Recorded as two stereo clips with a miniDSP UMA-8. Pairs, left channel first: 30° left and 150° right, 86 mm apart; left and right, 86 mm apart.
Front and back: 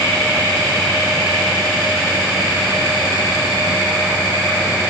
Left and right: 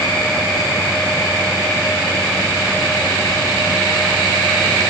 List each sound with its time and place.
Only background noise.